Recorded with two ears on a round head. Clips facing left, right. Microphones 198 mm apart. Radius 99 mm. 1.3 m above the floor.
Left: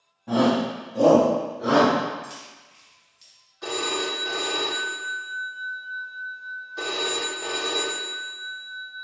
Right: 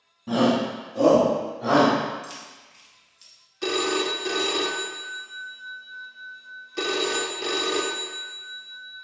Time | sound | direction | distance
0.3 | a shout | 30° right (ahead or behind) | 1.1 m
2.2 | keys jangling | 10° right (ahead or behind) | 0.9 m
3.6 | a phone ringing | 40° right (ahead or behind) | 0.6 m